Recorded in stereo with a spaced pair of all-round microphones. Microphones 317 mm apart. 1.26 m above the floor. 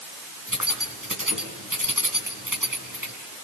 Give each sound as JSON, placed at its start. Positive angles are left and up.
{"t": 0.5, "sound": "keys jangling", "side_deg": -85, "distance_m": 7.5}